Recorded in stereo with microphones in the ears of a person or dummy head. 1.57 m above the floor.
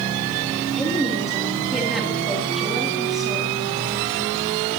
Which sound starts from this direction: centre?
A woman speaking, at 0.8 s.